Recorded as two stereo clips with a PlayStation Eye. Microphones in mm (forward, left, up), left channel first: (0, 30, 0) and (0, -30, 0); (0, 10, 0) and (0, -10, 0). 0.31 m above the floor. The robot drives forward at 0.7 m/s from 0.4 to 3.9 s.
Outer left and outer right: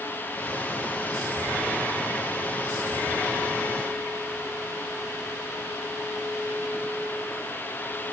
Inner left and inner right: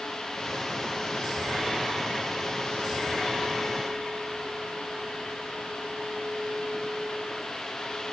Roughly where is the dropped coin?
No dropped coin in this recording.